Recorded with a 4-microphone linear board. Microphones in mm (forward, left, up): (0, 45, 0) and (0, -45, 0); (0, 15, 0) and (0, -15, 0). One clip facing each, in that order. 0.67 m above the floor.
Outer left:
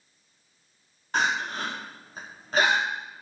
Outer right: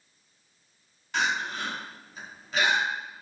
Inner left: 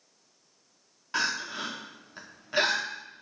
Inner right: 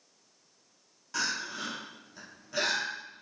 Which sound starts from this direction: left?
Crying, at 1.1 s.